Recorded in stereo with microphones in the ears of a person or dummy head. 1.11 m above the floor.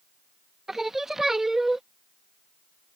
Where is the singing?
5° right (ahead or behind).